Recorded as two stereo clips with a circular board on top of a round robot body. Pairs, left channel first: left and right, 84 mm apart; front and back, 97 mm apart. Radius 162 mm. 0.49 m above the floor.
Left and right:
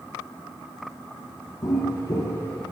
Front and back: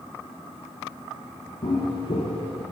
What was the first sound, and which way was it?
Footsteps, 45° left.